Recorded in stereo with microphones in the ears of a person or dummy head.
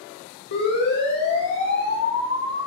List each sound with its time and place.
0.5 s a siren: 60° left (ahead or behind), 5.5 m; by 2.7 s 55° left (ahead or behind), 7 m